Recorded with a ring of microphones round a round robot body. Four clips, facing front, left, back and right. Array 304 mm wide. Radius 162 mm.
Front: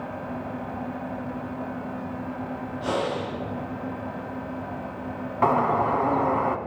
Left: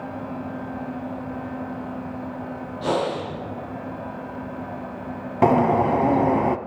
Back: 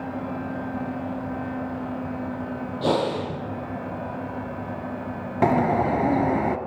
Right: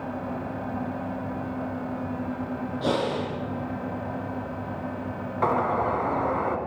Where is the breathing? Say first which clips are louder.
Left 3 dB, back 4 dB; 155° right, 8.5 m.